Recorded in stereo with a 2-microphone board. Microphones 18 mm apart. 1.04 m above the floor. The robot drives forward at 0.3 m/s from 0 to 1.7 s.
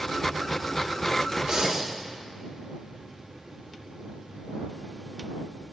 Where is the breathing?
40° right (ahead or behind), 0.6 m; by 1.9 s 35° right (ahead or behind), 0.6 m.